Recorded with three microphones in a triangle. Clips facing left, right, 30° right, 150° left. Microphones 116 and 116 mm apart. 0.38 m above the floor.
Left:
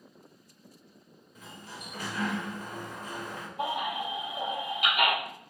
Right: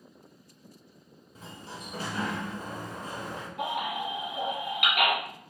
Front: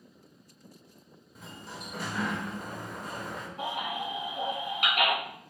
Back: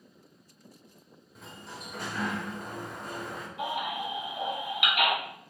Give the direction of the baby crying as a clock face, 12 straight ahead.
3 o'clock.